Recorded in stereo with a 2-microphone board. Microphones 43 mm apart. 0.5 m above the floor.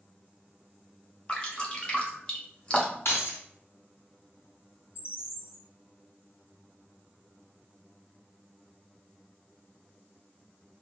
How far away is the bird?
About 0.8 m.